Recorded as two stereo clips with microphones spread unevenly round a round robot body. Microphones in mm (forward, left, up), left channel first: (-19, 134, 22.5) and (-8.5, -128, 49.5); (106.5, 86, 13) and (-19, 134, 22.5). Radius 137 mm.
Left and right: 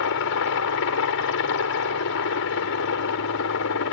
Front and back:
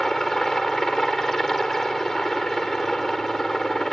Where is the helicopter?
65° left.